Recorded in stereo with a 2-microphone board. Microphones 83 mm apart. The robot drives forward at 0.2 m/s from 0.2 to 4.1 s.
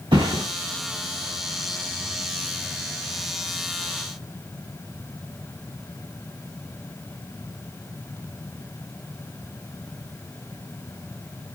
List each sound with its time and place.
0.1 s a thud: 80° right, 4 m